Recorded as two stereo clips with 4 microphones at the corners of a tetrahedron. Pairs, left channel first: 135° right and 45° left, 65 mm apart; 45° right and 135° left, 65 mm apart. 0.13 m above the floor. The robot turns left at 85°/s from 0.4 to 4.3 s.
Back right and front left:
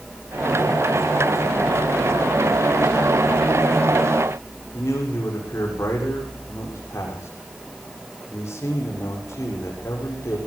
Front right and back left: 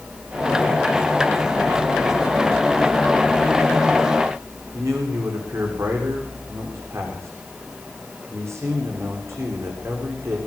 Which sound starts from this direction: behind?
A man speaking, at 4.7 s.